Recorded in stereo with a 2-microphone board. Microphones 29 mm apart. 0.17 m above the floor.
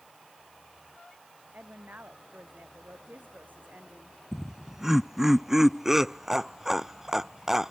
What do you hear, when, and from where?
1.5 s a woman speaking: 85° right
4.3 s laughter: 10° right (ahead or behind)